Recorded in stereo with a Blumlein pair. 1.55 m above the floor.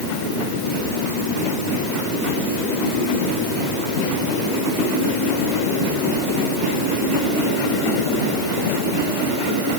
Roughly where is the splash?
I don't hear a splash.